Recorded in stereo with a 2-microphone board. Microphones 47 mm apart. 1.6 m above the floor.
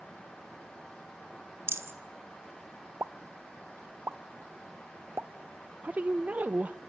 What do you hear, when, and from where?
1.7 s a rattle: 60° right (ahead or behind), 1.1 m
3.0 s a pop: 65° right (ahead or behind), 0.6 m
5.8 s a woman speaking: 35° right (ahead or behind), 0.5 m